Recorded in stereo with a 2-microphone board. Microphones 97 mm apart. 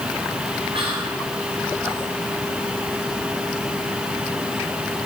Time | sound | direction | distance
0.7 | whispering | 65° right (ahead or behind) | 5.5 m